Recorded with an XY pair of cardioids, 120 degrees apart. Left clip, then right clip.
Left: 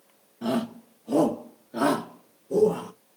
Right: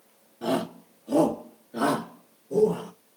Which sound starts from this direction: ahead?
A shout, at 0.4 s.